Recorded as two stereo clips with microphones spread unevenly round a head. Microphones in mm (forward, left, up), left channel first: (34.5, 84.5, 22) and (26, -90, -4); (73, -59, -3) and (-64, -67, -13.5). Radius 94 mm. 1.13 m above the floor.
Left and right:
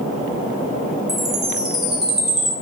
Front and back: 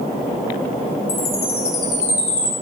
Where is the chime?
5° right, 2.5 m.